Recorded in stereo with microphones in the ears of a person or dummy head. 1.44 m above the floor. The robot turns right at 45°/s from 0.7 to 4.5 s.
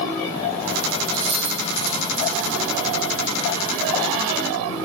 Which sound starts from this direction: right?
Keys jangling, at 1.1 s.